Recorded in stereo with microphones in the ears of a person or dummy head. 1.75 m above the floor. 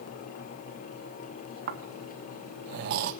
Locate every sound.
1.7 s snoring: 55° right (ahead or behind), 1.3 m